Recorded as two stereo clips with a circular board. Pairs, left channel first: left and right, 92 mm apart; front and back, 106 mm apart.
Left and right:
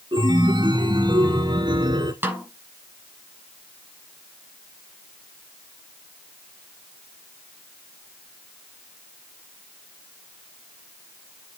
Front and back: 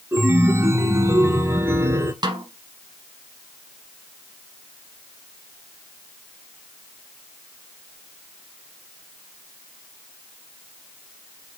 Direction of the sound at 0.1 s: 115° right.